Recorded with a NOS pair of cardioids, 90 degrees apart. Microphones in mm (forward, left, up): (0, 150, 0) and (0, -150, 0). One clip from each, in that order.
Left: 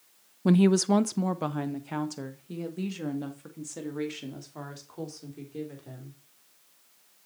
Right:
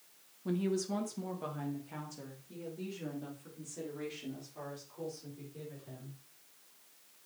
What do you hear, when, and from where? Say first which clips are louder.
0.5 s a woman speaking: left 11 dB; 70° left, 0.5 m